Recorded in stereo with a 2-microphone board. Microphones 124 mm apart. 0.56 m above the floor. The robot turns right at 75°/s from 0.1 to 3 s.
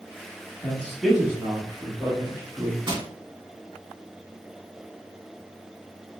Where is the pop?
I don't hear a pop.